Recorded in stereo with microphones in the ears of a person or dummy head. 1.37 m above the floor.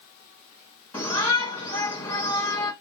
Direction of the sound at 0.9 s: 10° left (ahead or behind).